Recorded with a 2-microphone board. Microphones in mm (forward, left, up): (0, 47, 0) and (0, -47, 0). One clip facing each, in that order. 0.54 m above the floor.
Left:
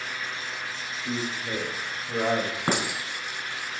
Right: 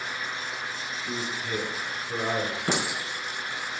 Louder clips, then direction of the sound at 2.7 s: Left 3 dB; 50° left (ahead or behind).